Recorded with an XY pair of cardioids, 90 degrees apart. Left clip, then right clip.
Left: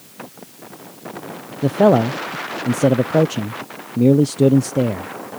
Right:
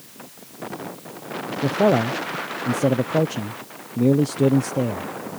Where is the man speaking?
35° left.